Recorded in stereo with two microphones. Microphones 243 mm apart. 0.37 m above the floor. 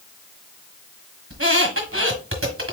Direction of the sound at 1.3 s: 60° right (ahead or behind).